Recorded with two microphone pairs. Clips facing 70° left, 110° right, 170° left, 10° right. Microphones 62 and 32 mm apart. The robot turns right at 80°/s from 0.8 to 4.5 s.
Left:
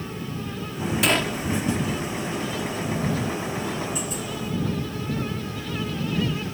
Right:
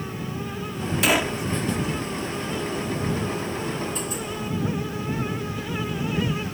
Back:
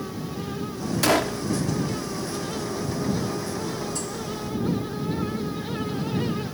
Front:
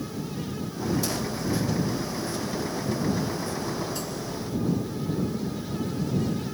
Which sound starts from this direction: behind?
A gunshot, at 1.0 s.